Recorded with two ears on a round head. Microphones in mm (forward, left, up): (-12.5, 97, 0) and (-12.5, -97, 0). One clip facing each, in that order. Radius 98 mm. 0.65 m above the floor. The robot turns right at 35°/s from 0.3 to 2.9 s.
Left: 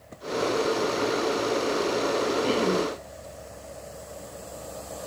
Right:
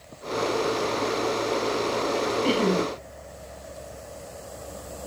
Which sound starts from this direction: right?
Laughter, at 2.4 s.